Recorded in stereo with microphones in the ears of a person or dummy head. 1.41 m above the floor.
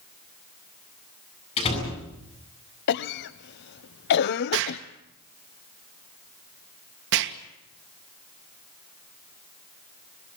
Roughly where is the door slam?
Left.